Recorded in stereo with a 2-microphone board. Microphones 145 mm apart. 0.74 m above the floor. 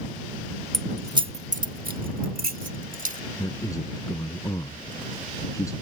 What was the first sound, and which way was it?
Keys jangling, 5° left (ahead or behind).